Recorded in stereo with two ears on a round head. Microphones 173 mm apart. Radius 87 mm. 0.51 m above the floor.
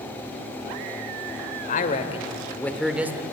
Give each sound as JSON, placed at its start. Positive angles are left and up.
{"t": 1.6, "sound": "a man speaking", "side_deg": 45, "distance_m": 2.5}